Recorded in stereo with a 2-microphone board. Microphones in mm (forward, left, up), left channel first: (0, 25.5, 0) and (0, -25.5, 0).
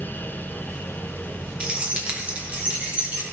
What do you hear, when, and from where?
1.6 s keys jangling: 20° right (ahead or behind), 1.9 m; by 3.2 s 25° right (ahead or behind), 3.5 m